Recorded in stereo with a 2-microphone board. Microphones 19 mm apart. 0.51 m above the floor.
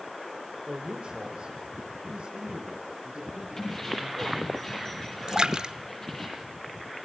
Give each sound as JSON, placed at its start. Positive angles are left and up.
{"t": 0.7, "sound": "a man speaking", "side_deg": -65, "distance_m": 1.5}
{"t": 3.6, "sound": "keys jangling", "side_deg": 25, "distance_m": 9.5}
{"t": 5.3, "sound": "a splash", "side_deg": -45, "distance_m": 1.0}